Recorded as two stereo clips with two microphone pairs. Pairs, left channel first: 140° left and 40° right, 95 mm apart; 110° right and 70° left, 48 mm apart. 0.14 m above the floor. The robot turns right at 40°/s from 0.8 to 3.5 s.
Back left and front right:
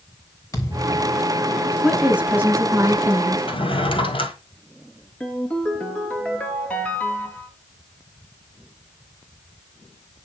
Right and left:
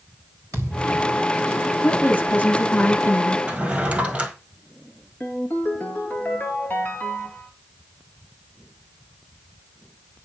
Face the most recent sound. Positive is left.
turn(degrees=-145)